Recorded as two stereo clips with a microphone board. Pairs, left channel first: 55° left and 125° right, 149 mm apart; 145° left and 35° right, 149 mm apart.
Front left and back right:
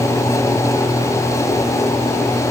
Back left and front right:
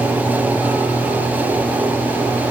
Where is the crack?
I don't hear a crack.